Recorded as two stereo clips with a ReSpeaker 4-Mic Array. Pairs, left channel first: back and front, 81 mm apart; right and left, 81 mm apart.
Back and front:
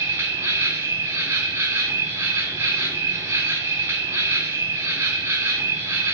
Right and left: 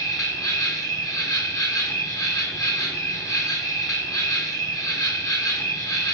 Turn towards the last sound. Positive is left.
turn(degrees=-55)